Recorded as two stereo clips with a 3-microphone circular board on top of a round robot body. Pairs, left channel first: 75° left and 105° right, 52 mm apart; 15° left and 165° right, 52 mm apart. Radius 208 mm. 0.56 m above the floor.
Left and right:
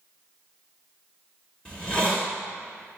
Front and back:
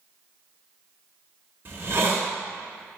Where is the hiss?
145° left, 1.4 m.